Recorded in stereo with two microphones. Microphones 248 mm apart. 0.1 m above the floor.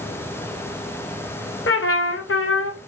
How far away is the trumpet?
About 0.6 m.